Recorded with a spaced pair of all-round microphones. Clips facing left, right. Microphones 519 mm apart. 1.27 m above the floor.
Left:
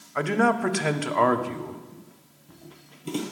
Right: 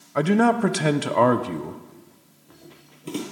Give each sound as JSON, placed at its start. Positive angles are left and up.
{"t": 0.1, "sound": "a man speaking", "side_deg": -60, "distance_m": 0.5}
{"t": 1.9, "sound": "footsteps", "side_deg": 40, "distance_m": 1.7}